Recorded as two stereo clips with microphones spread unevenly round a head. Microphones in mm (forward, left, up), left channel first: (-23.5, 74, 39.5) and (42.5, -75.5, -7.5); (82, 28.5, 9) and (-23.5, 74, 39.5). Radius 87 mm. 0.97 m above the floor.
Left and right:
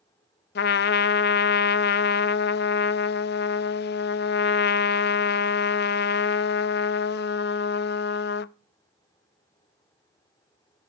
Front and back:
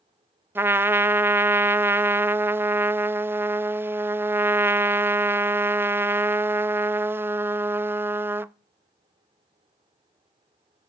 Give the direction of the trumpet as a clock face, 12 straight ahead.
9 o'clock.